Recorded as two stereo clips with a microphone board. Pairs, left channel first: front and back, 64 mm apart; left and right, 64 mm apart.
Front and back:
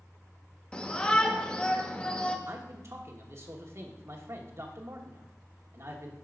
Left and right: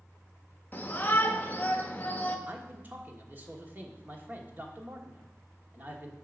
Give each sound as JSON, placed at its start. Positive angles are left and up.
{"t": 0.7, "sound": "a shout", "azimuth_deg": 60, "distance_m": 1.0}
{"t": 2.5, "sound": "a man speaking", "azimuth_deg": -145, "distance_m": 1.3}